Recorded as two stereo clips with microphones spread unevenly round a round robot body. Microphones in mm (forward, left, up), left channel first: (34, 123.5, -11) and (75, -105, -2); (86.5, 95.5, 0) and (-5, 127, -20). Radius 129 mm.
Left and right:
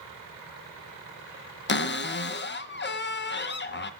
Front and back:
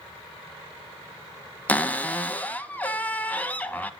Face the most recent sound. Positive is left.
turn(degrees=55)